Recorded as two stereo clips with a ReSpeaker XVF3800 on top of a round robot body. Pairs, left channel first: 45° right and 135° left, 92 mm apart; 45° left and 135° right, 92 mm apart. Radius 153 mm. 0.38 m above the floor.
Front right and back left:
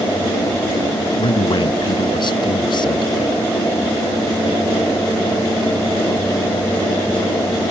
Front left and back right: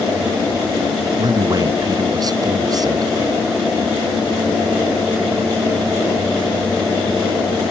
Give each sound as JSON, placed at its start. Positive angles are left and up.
{"t": 1.2, "sound": "a man speaking", "azimuth_deg": -85}